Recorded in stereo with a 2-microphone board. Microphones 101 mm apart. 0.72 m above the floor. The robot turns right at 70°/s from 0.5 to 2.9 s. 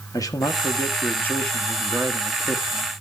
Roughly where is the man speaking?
Left.